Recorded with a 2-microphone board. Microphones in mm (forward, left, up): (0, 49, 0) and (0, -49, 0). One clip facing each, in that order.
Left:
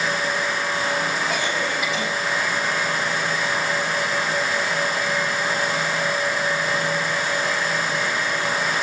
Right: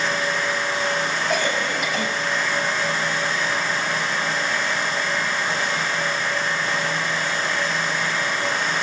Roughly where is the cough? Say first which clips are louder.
Right 1 dB; right.